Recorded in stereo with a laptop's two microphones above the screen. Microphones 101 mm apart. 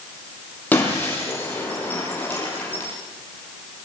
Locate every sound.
0.7 s breaking glass: 15° left (ahead or behind), 7.5 m